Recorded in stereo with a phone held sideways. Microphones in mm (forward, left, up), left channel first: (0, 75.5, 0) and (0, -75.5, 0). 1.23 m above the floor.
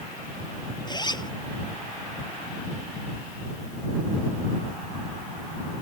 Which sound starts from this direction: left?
A zipper, at 0.9 s.